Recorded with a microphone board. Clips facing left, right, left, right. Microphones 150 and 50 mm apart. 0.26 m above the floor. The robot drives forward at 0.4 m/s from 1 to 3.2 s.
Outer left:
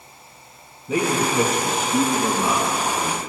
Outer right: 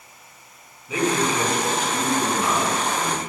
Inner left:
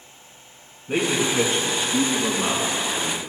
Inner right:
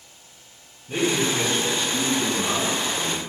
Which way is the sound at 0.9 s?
45° left (ahead or behind).